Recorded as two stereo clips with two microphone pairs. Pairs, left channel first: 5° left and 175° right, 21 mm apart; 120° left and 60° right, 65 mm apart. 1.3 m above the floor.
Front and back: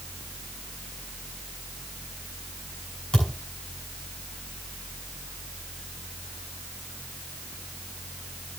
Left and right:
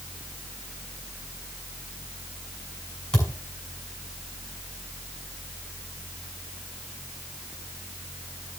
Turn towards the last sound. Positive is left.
turn(degrees=40)